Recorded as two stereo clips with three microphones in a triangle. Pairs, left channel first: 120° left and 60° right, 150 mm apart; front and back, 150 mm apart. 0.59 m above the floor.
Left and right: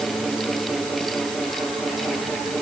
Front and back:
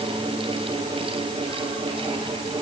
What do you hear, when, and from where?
Only background noise.